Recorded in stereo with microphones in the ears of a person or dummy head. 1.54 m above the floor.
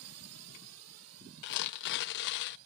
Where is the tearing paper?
65° left (ahead or behind).